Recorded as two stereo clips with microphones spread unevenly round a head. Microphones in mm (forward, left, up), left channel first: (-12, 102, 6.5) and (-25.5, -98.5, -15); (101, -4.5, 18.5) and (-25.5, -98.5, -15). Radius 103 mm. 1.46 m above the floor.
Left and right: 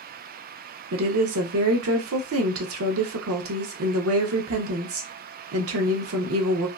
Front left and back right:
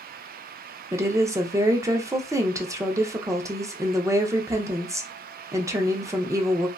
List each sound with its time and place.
0.9 s a woman speaking: 75° right, 0.6 m